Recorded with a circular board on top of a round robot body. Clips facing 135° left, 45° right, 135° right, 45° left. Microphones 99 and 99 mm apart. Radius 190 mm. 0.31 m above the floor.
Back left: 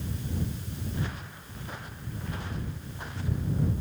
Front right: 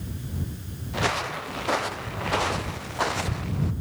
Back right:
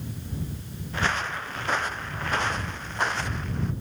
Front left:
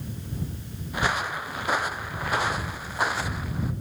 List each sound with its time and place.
0.9 s footsteps: 35° right; by 3.7 s 40° right